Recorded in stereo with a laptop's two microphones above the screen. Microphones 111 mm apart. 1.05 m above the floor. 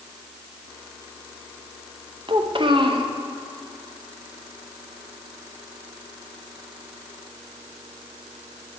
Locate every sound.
2.3 s a child speaking: 50° right (ahead or behind), 0.6 m